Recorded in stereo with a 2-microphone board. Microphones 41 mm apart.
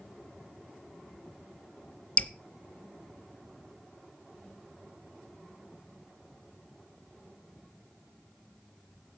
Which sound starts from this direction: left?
Dripping, at 2.2 s.